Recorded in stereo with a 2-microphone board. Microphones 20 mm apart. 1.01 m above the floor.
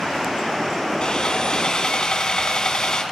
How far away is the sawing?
About 1.5 m.